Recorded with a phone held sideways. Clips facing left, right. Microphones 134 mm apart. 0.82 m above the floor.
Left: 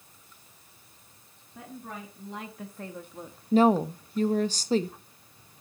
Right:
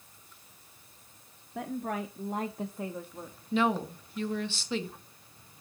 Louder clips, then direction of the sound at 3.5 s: Left 7 dB; 40° left (ahead or behind).